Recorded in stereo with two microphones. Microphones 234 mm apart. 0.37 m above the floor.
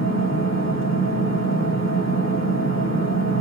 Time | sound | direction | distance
0.0 | an engine running | 65° left (ahead or behind) | 2.5 m